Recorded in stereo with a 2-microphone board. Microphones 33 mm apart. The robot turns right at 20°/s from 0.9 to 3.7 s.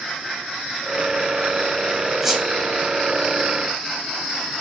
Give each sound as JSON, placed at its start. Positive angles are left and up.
{"t": 2.2, "sound": "a squeak", "side_deg": -10, "distance_m": 0.9}